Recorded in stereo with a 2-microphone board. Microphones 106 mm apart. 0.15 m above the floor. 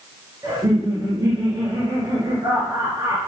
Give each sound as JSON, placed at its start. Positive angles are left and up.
{"t": 0.4, "sound": "laughter", "side_deg": -35, "distance_m": 2.5}